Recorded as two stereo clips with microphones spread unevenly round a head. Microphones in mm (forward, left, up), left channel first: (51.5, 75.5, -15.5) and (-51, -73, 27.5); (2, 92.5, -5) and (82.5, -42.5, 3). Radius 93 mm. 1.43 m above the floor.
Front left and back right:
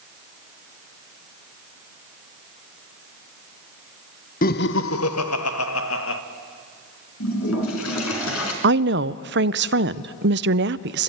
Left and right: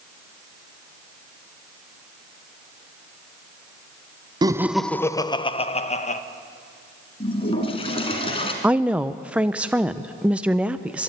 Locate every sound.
4.4 s laughter: 5° left, 0.6 m; by 6.2 s 75° left, 1.4 m
7.2 s a toilet flushing: 65° left, 3 m
8.6 s a woman speaking: 140° right, 0.5 m